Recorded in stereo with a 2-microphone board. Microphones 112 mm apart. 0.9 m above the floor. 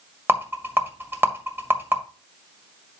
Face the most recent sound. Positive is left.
turn(degrees=-20)  # may be behind; listen again after turning